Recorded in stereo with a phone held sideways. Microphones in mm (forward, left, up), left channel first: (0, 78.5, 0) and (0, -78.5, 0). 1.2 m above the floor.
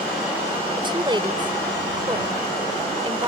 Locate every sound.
0.8 s a woman speaking: 30° right (ahead or behind)